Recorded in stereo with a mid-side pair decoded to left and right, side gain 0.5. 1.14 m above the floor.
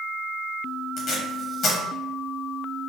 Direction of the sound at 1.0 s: 60° left.